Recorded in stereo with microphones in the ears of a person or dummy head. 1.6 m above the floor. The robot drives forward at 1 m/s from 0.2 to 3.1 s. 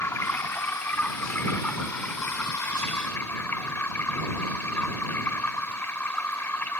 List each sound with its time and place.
0.0 s running water: 5° left (ahead or behind)